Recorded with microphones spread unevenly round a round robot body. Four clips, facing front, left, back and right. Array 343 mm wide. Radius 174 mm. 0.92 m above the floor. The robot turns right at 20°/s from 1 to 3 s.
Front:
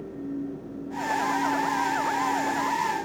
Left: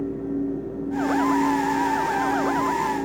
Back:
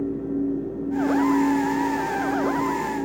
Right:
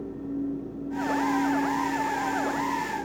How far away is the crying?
No crying in this recording.